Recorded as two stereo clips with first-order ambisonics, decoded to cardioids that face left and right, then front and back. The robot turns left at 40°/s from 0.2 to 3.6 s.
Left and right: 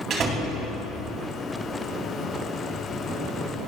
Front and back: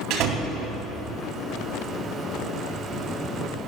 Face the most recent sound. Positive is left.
turn(degrees=80)